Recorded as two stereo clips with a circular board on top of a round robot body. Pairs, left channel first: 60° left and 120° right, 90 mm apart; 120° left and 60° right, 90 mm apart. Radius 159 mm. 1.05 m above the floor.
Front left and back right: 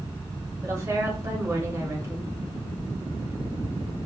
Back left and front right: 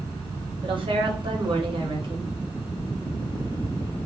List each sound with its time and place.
0.6 s a woman speaking: 65° right, 1.2 m